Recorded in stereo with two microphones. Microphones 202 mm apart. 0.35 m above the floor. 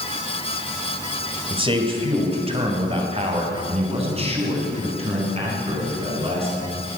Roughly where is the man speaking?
Right.